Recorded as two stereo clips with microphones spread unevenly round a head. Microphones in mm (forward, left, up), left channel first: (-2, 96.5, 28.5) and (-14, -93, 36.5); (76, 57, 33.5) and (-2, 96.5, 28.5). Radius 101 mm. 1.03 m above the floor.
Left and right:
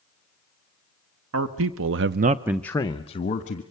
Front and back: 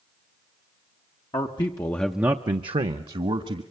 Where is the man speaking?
80° right, 1.2 m; by 3.6 s 135° left, 1.6 m.